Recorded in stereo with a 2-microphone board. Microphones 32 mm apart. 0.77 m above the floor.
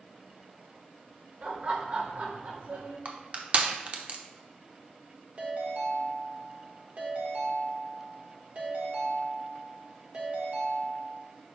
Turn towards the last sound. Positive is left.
turn(degrees=-45)  # may be behind; listen again after turning